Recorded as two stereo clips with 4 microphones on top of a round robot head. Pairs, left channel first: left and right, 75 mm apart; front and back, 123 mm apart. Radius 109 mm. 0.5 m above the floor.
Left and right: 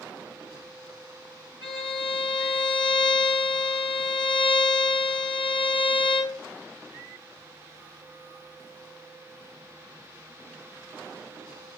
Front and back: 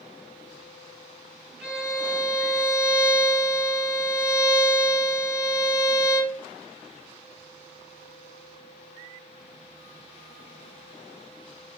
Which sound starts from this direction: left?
A violin, at 1.6 s.